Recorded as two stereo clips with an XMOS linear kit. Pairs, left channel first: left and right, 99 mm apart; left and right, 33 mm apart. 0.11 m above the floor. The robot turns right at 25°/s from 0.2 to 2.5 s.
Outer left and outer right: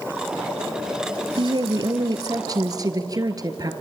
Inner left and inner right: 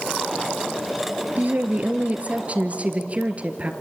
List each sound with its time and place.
1.4 s a woman speaking: 50° right (ahead or behind), 1.9 m; by 3.7 s 35° right (ahead or behind), 1.9 m